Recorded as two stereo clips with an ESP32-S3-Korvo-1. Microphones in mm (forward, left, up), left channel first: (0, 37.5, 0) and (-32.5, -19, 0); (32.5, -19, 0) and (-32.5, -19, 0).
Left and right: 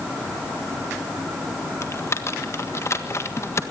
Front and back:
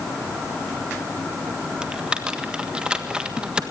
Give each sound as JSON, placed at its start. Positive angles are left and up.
{"t": 1.8, "sound": "typing on a keyboard", "azimuth_deg": 105, "distance_m": 1.5}